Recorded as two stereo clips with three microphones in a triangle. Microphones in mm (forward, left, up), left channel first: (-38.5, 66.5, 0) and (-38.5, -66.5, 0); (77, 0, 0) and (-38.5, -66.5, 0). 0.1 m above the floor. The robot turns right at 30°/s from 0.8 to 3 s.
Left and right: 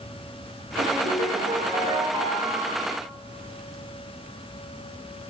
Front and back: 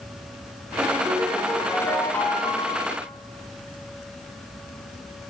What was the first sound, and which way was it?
A ringtone, 75° right.